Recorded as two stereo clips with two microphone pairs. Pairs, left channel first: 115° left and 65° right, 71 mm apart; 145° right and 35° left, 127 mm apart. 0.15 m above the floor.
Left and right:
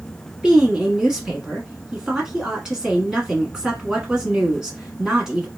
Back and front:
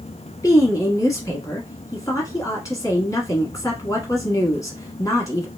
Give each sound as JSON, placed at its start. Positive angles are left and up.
{"t": 0.4, "sound": "a woman speaking", "azimuth_deg": -130, "distance_m": 1.1}